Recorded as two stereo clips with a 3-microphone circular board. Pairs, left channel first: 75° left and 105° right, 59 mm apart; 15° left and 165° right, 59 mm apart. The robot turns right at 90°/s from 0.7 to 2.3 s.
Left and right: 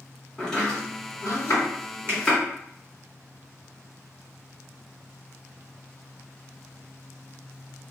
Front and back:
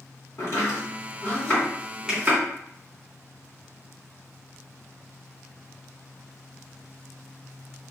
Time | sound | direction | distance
0.4 | chopping | 5° right | 1.4 m
2.1 | a finger snap | 100° right | 0.8 m